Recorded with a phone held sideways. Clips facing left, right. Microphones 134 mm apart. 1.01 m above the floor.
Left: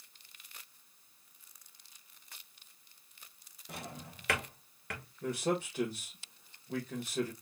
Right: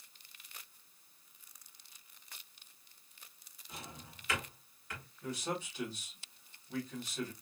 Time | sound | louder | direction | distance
3.7 | a drawer | left 5 dB | 70° left (ahead or behind) | 1.3 m
5.2 | a man speaking | left 6 dB | 50° left (ahead or behind) | 1.3 m